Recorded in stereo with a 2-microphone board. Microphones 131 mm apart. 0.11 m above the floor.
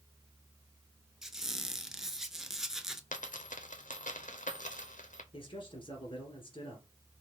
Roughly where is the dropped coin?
Left.